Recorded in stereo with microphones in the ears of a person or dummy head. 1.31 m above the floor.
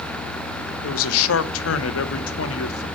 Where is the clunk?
No clunk in this recording.